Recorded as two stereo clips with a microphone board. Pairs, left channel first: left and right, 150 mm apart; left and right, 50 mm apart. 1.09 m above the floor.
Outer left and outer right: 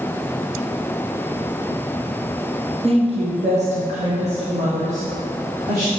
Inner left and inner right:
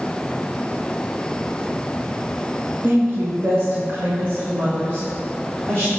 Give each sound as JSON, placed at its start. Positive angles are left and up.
{"t": 2.8, "sound": "a woman speaking", "side_deg": -40, "distance_m": 0.8}